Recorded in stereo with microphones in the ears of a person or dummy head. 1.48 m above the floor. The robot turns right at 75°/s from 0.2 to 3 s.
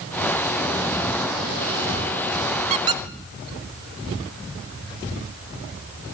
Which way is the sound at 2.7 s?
35° right (ahead or behind).